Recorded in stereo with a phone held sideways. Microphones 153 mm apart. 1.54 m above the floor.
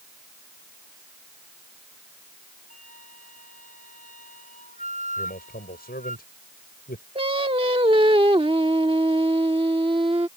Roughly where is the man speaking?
Left.